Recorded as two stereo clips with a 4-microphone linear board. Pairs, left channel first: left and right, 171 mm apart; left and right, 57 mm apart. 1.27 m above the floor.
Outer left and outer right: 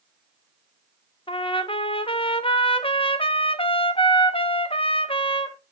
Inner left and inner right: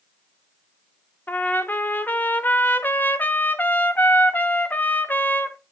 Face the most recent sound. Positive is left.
turn(degrees=30)  # may be behind; listen again after turning